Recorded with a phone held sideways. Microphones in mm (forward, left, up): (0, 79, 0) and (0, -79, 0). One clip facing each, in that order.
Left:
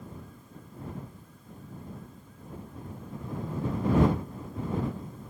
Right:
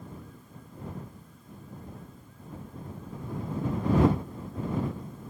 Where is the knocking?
40° right (ahead or behind).